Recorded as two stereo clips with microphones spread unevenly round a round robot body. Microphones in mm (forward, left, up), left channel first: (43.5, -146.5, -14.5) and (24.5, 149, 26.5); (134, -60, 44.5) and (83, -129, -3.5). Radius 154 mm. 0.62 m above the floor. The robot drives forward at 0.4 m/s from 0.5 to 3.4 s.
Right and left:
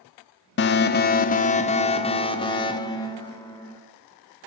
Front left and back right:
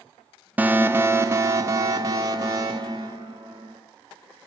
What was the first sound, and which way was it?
An alarm, 115° right.